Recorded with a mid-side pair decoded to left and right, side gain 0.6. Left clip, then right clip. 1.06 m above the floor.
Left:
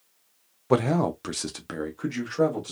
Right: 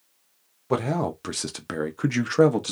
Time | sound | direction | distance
0.7 | a man speaking | 15° left | 0.8 m